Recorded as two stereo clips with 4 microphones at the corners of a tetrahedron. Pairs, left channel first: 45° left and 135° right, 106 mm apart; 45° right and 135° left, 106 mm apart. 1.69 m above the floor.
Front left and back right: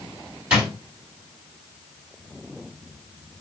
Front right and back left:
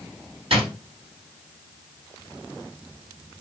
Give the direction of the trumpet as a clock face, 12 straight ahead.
I don't hear a trumpet.